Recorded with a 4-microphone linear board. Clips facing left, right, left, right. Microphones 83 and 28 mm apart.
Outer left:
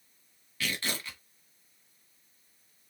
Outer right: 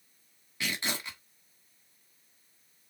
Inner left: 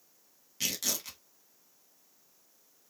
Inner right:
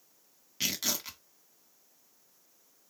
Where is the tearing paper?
20° right (ahead or behind), 1.8 m.